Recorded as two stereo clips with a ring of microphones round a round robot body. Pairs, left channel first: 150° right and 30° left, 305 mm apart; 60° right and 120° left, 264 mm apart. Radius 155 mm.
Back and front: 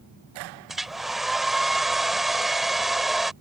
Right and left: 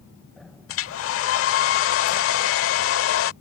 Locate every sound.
0.7 s a hair dryer: 60° right